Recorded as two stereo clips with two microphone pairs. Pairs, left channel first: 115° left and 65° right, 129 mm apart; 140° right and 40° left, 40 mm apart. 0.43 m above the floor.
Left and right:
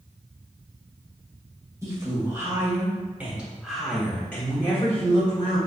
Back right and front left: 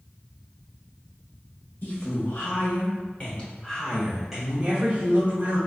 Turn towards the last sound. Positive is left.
turn(degrees=65)